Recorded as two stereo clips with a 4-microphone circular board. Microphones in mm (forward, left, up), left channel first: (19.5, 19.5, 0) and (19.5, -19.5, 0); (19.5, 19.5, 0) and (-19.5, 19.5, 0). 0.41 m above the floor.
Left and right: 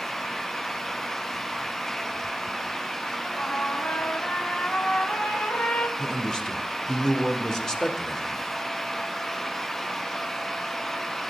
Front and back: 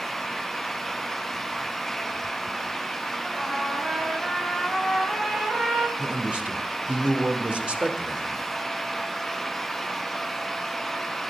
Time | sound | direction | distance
3.2 | a trumpet | 115° left | 2.5 m
6.0 | a man speaking | 145° left | 1.2 m